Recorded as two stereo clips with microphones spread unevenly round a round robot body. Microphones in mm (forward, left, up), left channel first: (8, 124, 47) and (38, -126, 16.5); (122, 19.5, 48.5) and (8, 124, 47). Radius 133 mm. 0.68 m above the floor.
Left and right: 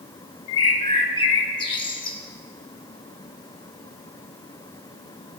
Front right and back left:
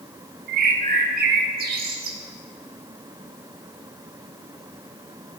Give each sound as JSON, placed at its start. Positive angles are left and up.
{"t": 0.5, "sound": "a bird", "azimuth_deg": 160, "distance_m": 0.6}